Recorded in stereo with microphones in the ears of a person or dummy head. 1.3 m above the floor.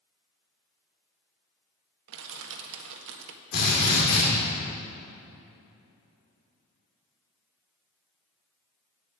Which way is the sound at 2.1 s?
75° right (ahead or behind).